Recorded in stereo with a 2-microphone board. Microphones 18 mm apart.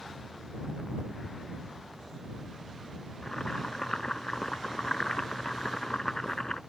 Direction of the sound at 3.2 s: 40° left (ahead or behind).